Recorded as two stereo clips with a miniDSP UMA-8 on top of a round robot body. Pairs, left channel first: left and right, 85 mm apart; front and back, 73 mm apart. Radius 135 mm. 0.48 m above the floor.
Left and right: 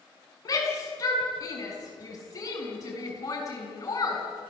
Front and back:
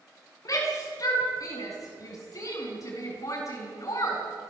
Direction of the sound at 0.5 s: 40° left.